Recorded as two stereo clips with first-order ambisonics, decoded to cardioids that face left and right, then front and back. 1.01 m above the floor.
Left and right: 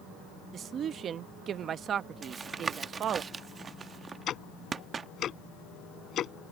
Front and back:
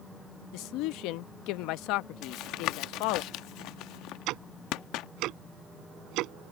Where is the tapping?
20° right.